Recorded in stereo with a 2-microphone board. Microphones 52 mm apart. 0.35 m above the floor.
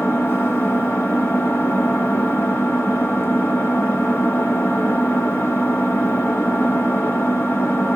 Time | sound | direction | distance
0.0 | an engine running | 50° left (ahead or behind) | 1.1 m